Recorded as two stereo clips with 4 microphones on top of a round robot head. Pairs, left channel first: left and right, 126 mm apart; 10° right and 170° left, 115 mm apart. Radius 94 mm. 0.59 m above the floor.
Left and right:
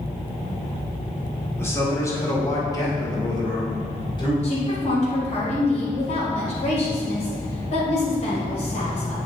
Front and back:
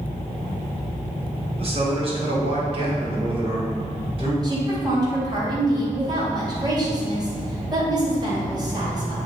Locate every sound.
1.6 s a man speaking: 155° left, 2 m; by 4.3 s 140° left, 3.5 m
4.4 s a woman speaking: 120° left, 2.5 m